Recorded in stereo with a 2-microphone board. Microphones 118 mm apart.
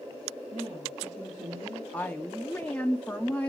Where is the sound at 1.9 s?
10° left (ahead or behind), 0.5 m.